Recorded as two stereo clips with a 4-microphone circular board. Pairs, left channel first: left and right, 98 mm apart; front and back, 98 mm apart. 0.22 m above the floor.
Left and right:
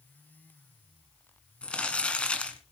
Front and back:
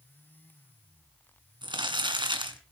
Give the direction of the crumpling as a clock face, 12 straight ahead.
6 o'clock.